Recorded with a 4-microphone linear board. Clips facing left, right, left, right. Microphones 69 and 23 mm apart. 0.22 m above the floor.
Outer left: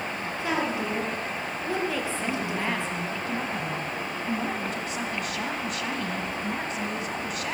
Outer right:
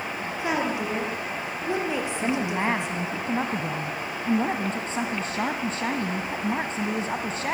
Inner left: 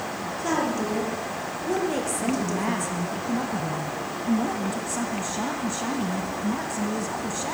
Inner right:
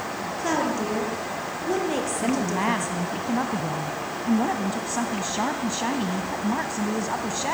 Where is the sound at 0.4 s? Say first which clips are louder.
Outer right 1 dB, inner right 1 dB; 20° right (ahead or behind), 5.5 m.